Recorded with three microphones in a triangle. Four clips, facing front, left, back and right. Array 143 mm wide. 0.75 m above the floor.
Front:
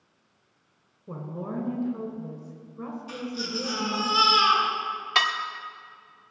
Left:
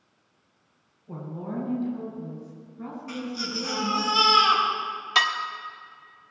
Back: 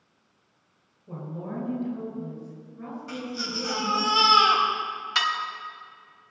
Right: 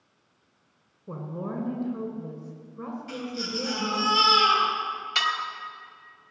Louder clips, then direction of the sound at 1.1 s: Right 1 dB, front 1 dB; 60° right.